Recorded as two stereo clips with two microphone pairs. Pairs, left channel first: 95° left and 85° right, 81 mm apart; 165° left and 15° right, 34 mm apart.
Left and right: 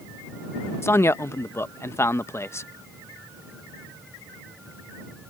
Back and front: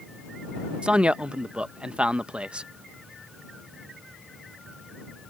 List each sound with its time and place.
0.8 s a man speaking: 40° left